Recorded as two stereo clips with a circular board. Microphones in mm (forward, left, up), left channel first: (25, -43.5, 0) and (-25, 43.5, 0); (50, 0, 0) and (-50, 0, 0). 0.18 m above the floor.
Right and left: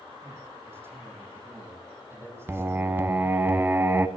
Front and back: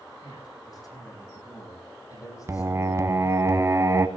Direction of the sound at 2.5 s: 165° left.